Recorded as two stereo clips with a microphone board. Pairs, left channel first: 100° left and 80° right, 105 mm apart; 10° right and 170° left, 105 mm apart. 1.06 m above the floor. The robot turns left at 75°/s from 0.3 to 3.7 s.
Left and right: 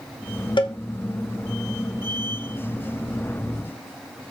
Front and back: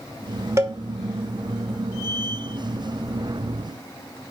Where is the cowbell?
115° left, 1.0 m; by 0.8 s 100° left, 1.0 m.